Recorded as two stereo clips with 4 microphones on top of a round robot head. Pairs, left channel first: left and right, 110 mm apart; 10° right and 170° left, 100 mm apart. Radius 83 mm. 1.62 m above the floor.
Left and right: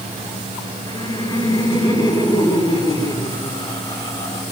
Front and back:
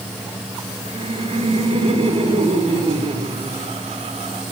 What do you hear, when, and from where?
0.8 s laughter: 145° left, 6.5 m